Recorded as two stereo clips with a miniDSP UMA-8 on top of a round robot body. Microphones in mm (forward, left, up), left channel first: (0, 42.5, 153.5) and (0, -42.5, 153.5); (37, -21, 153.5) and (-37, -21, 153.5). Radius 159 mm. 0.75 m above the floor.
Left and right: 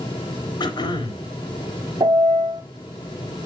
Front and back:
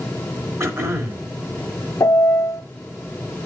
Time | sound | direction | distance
0.6 | throat clearing | 125° left | 3 m
2.0 | a piano | 50° right | 1.6 m